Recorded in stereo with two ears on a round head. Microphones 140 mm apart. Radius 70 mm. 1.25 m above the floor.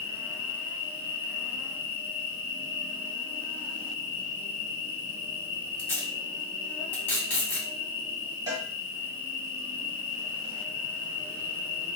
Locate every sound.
0.0 s an insect: 35° left (ahead or behind), 0.9 m
5.8 s tape being pulled: 15° left (ahead or behind), 0.9 m
8.5 s a cowbell: 25° right (ahead or behind), 1.6 m